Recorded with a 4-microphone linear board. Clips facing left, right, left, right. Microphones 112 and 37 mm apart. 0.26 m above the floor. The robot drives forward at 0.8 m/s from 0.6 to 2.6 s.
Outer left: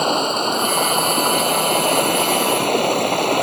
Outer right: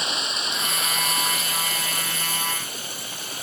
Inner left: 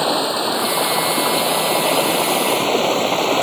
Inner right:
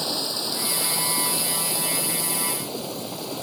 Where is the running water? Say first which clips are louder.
Outer left 13 dB, inner left 10 dB; 50° left (ahead or behind); by 3.4 s 70° left (ahead or behind).